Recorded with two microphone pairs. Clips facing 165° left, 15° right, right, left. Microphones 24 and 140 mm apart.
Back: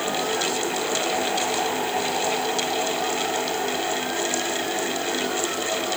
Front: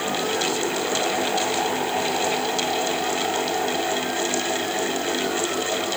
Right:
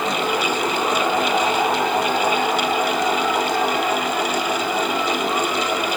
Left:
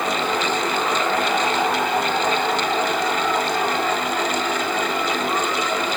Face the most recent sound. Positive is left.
No sound to turn to.